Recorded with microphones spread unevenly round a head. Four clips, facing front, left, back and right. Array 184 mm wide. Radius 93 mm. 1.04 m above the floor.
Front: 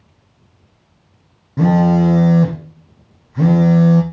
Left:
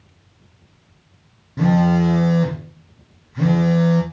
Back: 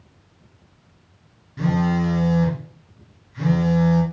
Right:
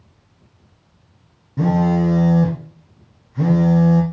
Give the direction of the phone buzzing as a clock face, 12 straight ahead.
12 o'clock.